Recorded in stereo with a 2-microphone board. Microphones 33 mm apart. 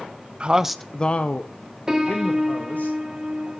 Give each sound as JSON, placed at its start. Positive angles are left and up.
{"t": 0.4, "sound": "a man speaking", "side_deg": -35, "distance_m": 0.6}
{"t": 1.9, "sound": "a piano", "side_deg": -15, "distance_m": 1.3}